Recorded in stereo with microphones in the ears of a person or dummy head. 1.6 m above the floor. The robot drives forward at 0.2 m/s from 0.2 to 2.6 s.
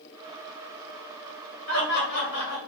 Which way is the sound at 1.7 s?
90° left.